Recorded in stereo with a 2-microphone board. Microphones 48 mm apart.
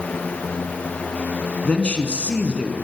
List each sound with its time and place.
1.6 s a man speaking: 25° left (ahead or behind), 1.2 m